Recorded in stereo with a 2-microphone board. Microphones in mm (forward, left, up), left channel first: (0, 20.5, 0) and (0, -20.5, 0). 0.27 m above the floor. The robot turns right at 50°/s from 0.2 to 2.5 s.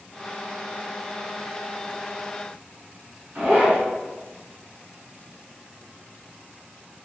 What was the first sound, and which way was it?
A zipper, 55° right (ahead or behind).